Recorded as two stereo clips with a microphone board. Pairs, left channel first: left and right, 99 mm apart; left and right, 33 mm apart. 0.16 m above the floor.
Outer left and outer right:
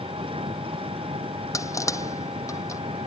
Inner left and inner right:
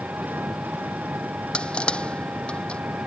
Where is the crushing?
30° left (ahead or behind).